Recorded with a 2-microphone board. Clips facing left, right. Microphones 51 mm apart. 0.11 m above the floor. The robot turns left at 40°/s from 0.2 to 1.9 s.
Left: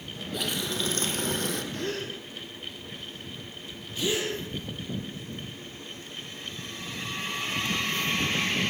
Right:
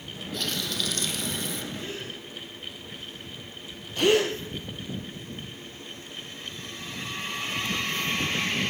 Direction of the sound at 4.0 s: 55° right (ahead or behind).